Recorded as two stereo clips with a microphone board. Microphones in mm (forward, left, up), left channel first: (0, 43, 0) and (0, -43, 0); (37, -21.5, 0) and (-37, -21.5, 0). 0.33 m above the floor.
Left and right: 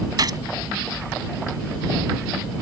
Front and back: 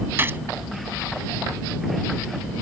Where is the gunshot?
120° right.